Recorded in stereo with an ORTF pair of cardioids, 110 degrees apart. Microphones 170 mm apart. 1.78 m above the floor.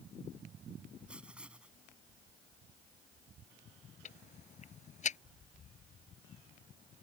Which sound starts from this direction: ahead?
Writing, at 1.1 s.